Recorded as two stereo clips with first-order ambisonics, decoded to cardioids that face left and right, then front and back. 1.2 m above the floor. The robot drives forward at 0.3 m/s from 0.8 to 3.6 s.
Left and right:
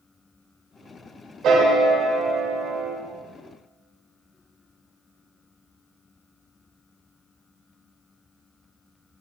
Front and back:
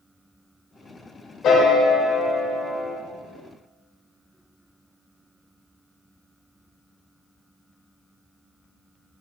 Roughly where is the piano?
Ahead right.